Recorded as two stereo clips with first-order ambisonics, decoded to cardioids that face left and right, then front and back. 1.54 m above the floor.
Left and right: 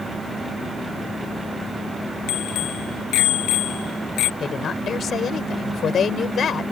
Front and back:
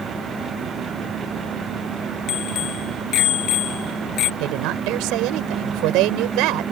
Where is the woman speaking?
150° left.